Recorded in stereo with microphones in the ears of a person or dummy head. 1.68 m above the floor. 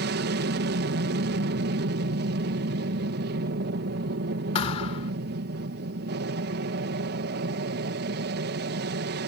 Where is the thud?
35° left (ahead or behind).